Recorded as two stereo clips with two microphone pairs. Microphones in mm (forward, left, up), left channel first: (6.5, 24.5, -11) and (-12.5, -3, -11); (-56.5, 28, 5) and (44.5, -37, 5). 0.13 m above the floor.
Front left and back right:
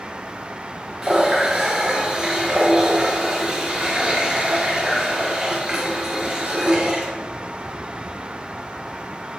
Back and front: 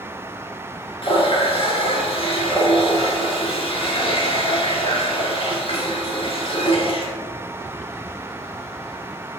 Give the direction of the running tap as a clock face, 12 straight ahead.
7 o'clock.